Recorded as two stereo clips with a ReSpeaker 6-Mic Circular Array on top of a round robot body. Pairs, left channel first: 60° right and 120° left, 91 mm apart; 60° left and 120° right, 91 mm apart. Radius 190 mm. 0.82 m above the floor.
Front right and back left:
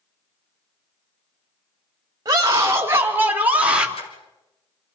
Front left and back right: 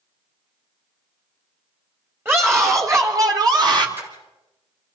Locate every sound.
2.2 s a scream: 170° left, 2.5 m; by 3.9 s 160° right, 3 m
4.0 s a splash: 55° right, 3.5 m